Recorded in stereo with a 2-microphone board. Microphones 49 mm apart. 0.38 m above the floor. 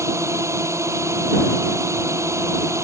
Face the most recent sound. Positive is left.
turn(degrees=-85)